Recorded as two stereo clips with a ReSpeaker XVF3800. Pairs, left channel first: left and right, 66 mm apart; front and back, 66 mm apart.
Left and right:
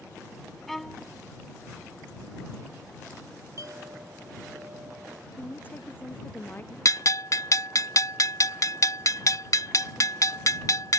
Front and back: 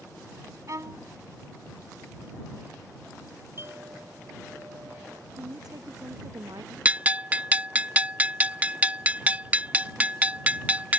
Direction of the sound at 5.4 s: 155° left.